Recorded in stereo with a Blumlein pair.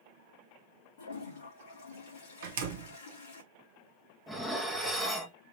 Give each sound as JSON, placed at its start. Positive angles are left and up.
{"t": 1.0, "sound": "a toilet flushing", "azimuth_deg": 55, "distance_m": 2.0}
{"t": 2.4, "sound": "a door slam", "azimuth_deg": -60, "distance_m": 0.9}
{"t": 4.3, "sound": "dishes clattering", "azimuth_deg": 0, "distance_m": 1.1}